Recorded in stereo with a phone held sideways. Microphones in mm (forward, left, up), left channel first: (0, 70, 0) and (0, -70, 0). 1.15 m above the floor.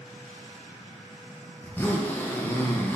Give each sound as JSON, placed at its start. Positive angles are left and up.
{"t": 1.6, "sound": "a zipper", "side_deg": 15, "distance_m": 0.5}